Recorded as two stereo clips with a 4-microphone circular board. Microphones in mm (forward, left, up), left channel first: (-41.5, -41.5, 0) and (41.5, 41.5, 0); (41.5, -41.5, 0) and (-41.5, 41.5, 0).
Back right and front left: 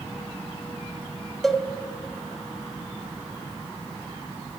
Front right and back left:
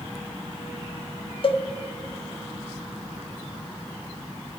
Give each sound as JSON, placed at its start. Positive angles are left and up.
{"t": 1.4, "sound": "a cowbell", "azimuth_deg": -50, "distance_m": 0.6}